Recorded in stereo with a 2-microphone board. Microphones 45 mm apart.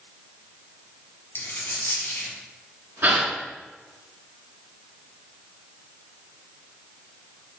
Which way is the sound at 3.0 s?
45° right (ahead or behind).